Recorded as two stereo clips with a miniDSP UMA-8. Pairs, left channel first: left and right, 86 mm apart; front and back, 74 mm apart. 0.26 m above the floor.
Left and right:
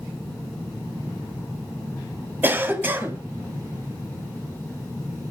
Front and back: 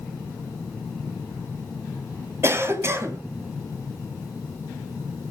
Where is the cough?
145° right, 2 m.